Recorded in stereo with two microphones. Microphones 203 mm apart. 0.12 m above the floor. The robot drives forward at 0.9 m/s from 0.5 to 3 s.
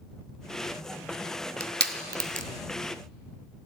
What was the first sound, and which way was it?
Crushing, 50° right (ahead or behind).